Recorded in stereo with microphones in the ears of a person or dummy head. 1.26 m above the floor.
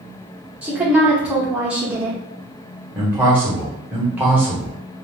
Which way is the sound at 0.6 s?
5° right (ahead or behind).